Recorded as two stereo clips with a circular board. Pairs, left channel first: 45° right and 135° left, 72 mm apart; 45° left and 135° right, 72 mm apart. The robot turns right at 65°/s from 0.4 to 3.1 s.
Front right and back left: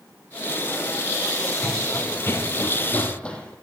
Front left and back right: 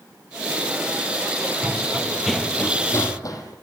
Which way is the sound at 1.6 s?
150° right.